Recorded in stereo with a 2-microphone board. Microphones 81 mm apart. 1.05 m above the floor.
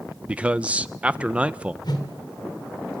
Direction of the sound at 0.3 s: 15° right (ahead or behind).